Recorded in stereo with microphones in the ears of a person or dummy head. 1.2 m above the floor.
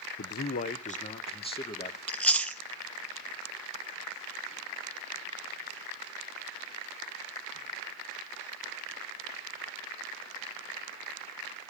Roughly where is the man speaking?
Left.